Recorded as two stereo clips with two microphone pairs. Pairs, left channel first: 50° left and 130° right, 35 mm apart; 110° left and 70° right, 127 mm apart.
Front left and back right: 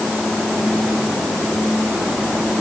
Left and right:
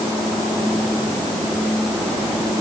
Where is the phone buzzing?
No phone buzzing in this recording.